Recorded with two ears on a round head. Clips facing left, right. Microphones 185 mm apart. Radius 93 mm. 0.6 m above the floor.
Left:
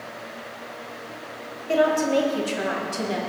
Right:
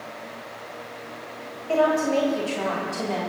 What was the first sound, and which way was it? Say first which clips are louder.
A woman speaking: left 1 dB; 20° left (ahead or behind).